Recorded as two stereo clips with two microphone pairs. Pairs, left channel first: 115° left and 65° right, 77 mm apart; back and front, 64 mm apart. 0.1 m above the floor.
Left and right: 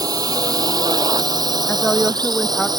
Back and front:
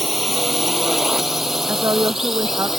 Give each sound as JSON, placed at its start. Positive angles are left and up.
{"t": 0.0, "sound": "a drone", "azimuth_deg": -85}
{"t": 1.7, "sound": "a woman speaking", "azimuth_deg": 30}